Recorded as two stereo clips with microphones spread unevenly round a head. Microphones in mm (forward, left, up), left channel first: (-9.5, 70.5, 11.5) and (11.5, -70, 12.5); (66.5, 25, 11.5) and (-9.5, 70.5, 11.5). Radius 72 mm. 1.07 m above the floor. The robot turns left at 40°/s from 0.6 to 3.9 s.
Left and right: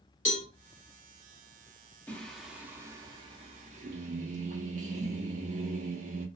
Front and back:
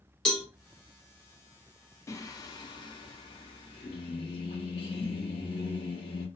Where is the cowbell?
50° left, 1.4 m.